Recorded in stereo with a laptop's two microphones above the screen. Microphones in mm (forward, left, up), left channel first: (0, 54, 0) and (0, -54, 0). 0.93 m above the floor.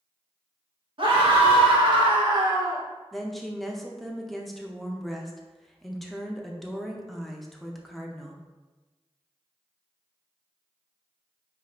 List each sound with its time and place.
1.0 s a scream: 50° right (ahead or behind), 1.2 m; by 2.8 s 30° right (ahead or behind), 1.1 m
3.1 s a woman speaking: centre (ahead or behind), 0.6 m